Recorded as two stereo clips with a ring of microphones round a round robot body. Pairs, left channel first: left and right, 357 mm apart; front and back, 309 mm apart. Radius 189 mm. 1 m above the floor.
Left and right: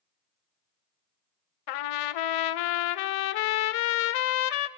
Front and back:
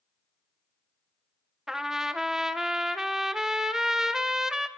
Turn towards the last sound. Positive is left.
turn(degrees=90)